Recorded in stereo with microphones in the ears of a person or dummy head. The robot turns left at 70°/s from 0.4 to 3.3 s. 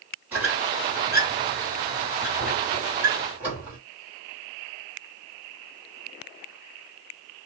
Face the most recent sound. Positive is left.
turn(degrees=-10)  # may be behind; listen again after turning